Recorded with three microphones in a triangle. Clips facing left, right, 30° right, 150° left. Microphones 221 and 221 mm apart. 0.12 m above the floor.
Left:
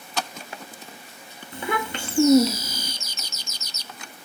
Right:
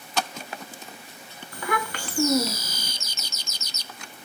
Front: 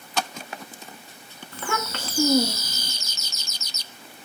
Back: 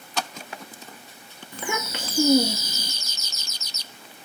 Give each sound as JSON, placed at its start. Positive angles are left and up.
{"t": 1.5, "sound": "a child speaking", "azimuth_deg": 100, "distance_m": 0.7}